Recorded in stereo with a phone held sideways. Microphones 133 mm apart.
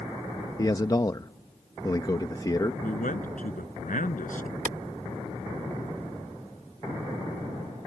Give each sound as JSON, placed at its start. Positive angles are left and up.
{"t": 0.6, "sound": "a man speaking", "side_deg": 30}
{"t": 2.8, "sound": "a man speaking", "side_deg": 85}
{"t": 4.7, "sound": "a clap", "side_deg": -70}